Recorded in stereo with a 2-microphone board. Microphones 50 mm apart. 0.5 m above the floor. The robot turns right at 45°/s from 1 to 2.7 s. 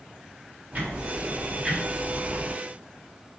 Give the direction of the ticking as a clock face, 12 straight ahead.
2 o'clock.